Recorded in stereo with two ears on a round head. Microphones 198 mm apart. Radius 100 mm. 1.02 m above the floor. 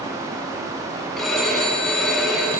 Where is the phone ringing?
Centre (ahead or behind), 6.5 m.